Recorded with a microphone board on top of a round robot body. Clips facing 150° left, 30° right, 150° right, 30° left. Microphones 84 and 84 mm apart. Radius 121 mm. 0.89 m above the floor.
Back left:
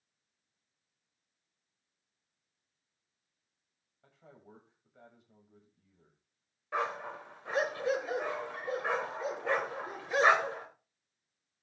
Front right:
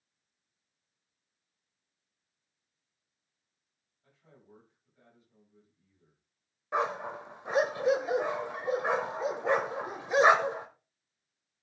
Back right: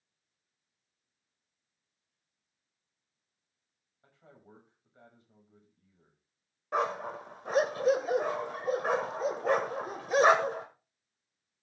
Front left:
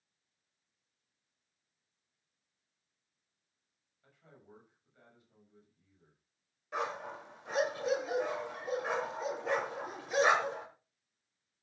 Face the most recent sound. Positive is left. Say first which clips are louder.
# front right 4 dB, back right 6 dB
turn(degrees=-100)